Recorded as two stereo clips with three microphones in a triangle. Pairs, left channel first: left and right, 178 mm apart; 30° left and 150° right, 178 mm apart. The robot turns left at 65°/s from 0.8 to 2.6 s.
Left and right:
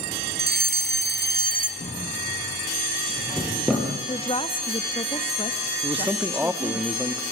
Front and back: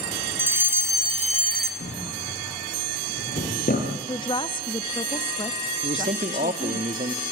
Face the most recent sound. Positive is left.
turn(degrees=-165)